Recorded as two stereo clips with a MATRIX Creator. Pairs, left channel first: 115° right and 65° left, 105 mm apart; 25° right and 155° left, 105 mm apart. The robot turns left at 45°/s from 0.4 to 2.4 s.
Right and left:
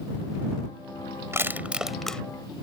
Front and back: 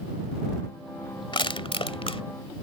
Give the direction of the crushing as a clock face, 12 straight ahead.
12 o'clock.